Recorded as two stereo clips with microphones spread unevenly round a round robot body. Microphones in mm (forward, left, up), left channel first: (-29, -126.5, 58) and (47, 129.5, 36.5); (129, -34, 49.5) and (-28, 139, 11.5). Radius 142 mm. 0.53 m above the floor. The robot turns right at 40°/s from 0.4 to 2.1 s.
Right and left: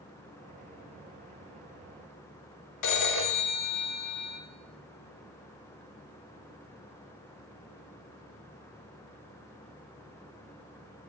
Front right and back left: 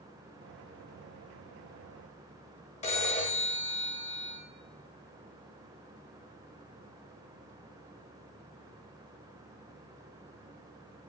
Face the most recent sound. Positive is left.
turn(degrees=-115)